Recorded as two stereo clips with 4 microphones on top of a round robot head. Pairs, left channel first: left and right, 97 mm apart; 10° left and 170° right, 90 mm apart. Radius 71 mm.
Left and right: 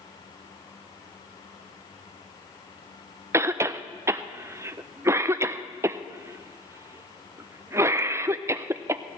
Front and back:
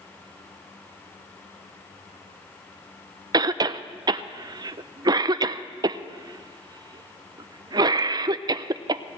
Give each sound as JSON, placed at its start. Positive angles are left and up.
{"t": 3.3, "sound": "a cough", "azimuth_deg": -145, "distance_m": 0.5}